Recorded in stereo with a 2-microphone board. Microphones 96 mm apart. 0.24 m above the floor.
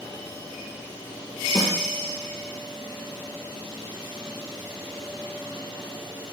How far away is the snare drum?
About 6 m.